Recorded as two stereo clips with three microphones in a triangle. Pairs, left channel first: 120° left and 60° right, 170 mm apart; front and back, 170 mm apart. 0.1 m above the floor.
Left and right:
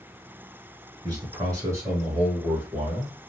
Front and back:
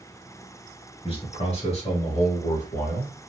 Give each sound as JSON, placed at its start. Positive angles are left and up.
{"t": 1.0, "sound": "a man speaking", "azimuth_deg": -15, "distance_m": 1.9}